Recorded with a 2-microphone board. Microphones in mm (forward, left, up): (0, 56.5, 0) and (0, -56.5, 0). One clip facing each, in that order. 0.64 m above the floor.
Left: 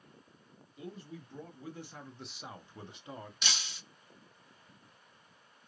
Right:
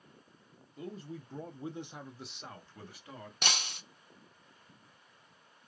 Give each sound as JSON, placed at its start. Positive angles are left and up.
{"t": 0.8, "sound": "a man speaking", "side_deg": -40, "distance_m": 0.9}
{"t": 3.4, "sound": "breaking glass", "side_deg": -55, "distance_m": 0.6}